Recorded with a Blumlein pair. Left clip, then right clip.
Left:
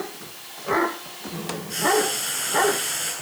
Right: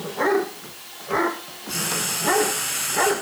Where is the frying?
40° right, 9 m.